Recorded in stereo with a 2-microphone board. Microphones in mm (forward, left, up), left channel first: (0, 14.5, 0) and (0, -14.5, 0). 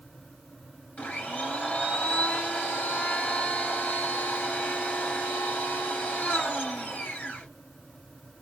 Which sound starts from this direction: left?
A blender, at 1.0 s.